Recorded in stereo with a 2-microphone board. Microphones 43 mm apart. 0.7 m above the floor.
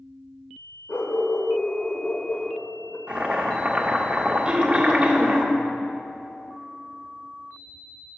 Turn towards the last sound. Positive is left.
turn(degrees=-20)  # may be behind; listen again after turning